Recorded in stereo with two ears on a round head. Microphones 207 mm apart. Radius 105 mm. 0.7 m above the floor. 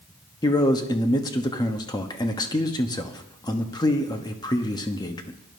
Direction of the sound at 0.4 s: 20° left (ahead or behind).